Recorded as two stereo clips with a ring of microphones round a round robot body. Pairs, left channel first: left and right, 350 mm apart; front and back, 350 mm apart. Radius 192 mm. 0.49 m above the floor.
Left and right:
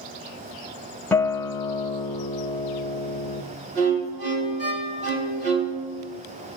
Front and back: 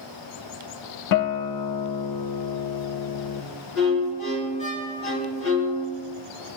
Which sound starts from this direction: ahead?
A guitar, at 1.1 s.